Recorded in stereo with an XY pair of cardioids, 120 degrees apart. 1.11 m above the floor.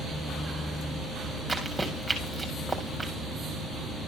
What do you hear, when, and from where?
1.5 s running footsteps: 5° right, 5 m